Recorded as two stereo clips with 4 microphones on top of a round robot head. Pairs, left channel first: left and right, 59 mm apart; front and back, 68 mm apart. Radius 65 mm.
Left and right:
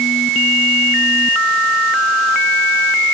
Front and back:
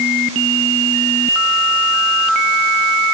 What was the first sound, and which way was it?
Only background noise.